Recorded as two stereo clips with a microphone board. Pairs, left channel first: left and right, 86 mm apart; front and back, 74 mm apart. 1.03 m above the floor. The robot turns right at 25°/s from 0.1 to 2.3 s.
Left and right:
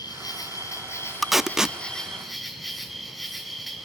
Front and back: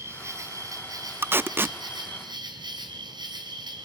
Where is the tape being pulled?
Straight behind, 0.5 m; by 1.8 s 165° right, 0.5 m.